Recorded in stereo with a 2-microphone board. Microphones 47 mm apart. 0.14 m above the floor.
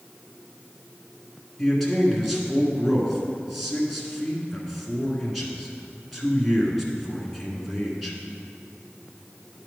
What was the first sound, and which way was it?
A man speaking, centre (ahead or behind).